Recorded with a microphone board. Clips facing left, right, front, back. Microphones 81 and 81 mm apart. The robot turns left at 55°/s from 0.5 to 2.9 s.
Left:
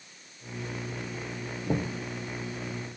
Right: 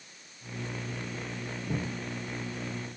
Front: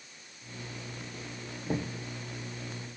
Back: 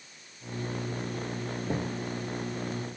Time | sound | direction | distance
1.7 | knocking | 90° left | 1.6 m